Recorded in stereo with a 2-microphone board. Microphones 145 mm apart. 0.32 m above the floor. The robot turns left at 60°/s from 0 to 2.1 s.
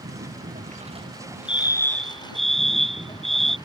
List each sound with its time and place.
0.0 s a lawn mower: 85° right; by 3.7 s 150° left
1.5 s a fire alarm: 40° left; by 3.6 s straight ahead